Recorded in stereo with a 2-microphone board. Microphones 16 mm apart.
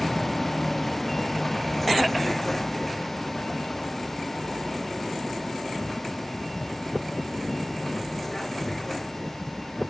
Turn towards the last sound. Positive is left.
turn(degrees=15)  # may be behind; listen again after turning